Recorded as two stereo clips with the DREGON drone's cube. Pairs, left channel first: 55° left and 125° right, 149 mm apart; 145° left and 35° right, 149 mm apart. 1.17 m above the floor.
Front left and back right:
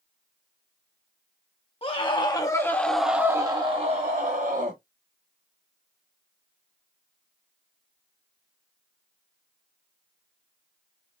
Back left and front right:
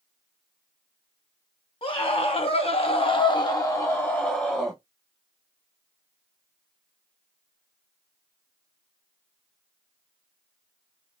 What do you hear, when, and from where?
1.8 s a scream: 100° left, 1.2 m; by 4.8 s 130° right, 1.3 m